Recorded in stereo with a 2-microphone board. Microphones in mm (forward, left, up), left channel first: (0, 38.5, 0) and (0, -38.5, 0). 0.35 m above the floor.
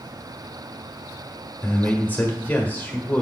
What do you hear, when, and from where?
1.6 s a man speaking: 20° left (ahead or behind), 1.5 m